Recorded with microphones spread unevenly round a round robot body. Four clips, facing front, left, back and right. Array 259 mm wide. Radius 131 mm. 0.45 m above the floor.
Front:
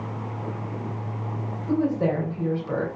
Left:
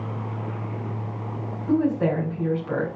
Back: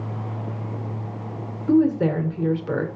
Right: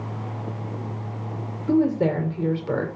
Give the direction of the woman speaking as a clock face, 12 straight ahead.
4 o'clock.